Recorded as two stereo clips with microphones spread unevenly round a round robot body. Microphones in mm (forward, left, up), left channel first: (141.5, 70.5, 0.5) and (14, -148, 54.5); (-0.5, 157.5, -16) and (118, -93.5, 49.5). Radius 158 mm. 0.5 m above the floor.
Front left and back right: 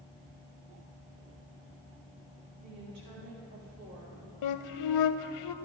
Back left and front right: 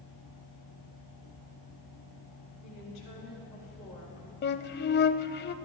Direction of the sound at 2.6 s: Straight behind.